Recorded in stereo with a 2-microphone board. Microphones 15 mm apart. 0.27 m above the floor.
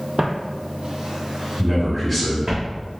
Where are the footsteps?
55° right (ahead or behind), 0.5 m; by 2.6 s 45° right (ahead or behind), 1.4 m.